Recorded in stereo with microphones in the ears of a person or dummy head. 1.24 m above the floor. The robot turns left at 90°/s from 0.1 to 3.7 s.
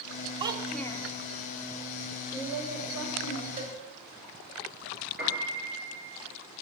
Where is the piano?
5° right (ahead or behind), 4 m.